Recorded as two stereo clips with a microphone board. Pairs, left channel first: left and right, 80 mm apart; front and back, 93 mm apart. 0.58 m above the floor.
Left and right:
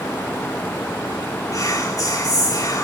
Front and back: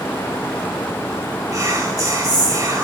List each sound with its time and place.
1.5 s whispering: 130° left, 2.5 m